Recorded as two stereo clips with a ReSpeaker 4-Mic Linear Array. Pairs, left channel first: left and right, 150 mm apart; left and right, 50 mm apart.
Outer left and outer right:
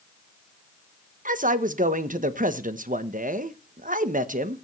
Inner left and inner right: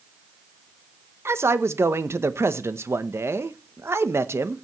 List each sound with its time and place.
1.2 s a man speaking: 65° right (ahead or behind), 1.0 m